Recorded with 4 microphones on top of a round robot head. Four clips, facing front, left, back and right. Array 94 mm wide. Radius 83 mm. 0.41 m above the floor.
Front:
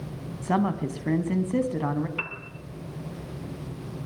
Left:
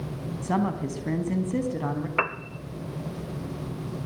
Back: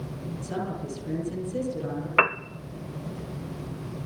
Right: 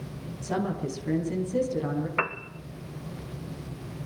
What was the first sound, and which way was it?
A woman speaking, 25° left.